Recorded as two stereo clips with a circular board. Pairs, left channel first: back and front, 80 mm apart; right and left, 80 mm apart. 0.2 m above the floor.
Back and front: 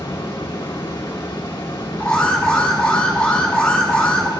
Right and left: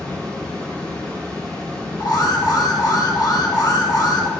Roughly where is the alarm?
Right.